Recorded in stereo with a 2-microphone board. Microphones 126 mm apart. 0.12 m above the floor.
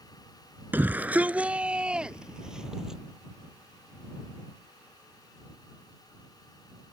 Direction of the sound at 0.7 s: 15° right (ahead or behind).